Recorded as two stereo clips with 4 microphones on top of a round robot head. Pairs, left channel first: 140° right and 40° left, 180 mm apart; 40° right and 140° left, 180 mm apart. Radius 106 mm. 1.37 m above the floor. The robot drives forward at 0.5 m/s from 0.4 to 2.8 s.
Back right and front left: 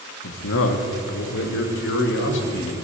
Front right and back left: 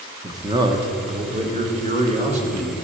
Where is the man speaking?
150° right, 1.0 m; by 2.8 s 165° right, 2 m.